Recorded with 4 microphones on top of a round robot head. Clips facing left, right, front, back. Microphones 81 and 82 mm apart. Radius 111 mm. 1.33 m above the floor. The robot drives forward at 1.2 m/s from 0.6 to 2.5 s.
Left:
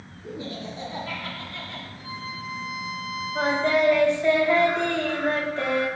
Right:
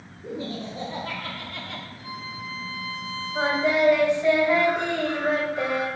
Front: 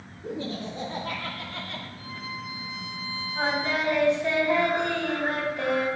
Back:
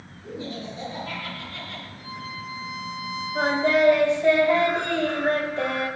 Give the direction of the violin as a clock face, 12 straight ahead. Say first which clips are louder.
Left 1 dB, back 1 dB; 7 o'clock.